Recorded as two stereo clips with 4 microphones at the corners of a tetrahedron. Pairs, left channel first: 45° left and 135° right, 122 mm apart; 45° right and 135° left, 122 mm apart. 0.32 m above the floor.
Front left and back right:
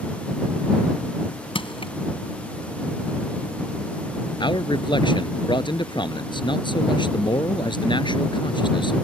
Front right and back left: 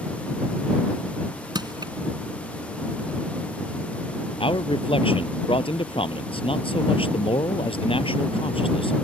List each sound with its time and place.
1.6 s crushing: 85° left
4.4 s a man speaking: 5° right